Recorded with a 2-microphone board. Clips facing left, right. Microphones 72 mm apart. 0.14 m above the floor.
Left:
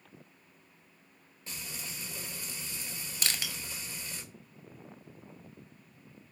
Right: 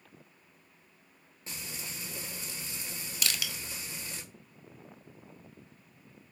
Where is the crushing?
35° left (ahead or behind), 0.6 m.